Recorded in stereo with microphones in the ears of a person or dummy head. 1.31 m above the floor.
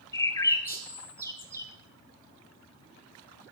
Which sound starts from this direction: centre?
A bird, at 0.1 s.